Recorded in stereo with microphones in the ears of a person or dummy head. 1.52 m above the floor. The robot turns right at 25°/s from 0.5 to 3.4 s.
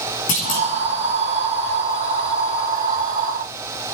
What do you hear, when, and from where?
0.3 s a clunk: 55° left (ahead or behind), 2.5 m; by 0.7 s 50° left (ahead or behind), 2.5 m